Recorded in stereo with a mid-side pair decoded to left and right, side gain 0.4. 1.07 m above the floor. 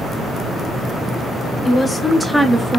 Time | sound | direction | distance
1.6 | a woman speaking | 40° left | 0.7 m